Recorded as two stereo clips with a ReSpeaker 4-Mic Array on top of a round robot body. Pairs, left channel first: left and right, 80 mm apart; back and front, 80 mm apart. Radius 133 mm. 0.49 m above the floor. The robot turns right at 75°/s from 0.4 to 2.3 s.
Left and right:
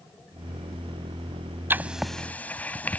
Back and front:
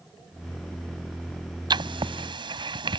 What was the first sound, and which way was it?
Writing, 25° right.